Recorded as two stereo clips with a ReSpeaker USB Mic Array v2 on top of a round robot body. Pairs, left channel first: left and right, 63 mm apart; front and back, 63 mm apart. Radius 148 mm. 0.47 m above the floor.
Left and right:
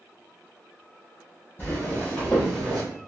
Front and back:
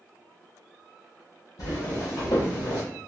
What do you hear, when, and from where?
1.6 s footsteps: 30° left, 1.4 m; by 2.8 s 5° right, 0.9 m